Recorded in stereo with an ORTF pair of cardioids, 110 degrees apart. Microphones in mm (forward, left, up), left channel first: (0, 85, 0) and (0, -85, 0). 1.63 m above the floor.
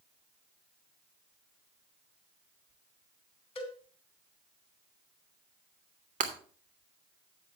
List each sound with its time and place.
3.5 s a cowbell: 35° left, 2.5 m
6.2 s breaking glass: 50° right, 3 m